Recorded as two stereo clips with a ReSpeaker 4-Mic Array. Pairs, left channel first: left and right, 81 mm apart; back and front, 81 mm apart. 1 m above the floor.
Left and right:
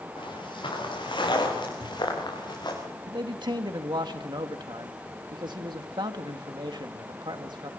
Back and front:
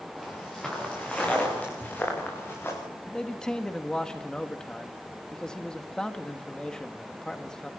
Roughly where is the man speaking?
Right.